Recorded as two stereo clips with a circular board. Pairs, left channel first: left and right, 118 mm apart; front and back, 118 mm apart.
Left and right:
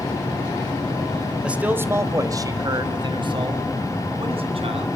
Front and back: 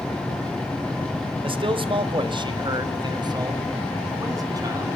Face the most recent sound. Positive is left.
turn(degrees=-120)